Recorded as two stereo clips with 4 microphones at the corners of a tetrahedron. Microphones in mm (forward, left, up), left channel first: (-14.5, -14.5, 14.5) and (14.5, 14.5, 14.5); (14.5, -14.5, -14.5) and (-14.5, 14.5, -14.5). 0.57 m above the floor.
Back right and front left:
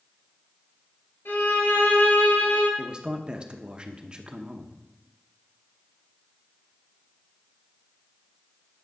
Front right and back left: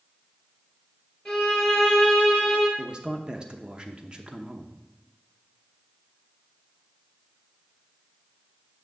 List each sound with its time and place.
1.2 s a violin: 125° right, 3.5 m
2.8 s a man speaking: 90° left, 0.8 m